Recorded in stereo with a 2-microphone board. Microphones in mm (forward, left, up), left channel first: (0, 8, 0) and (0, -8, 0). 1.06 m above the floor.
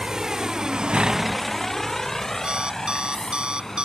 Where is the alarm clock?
80° right.